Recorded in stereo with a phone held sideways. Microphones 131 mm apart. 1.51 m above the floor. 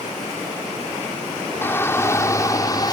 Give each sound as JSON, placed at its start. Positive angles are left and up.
{"t": 1.6, "sound": "a shout", "side_deg": 15}